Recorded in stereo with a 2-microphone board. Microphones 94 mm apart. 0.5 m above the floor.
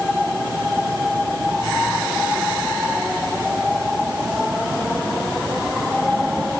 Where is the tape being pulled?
I don't hear tape being pulled.